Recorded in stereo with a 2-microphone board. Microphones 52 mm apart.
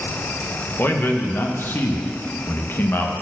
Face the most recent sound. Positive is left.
turn(degrees=45)  # may be behind; listen again after turning